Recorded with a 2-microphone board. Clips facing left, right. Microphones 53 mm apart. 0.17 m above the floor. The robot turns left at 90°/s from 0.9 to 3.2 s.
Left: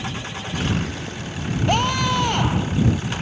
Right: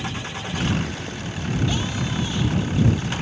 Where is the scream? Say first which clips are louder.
Left 6 dB; 125° left; by 2.8 s 25° left.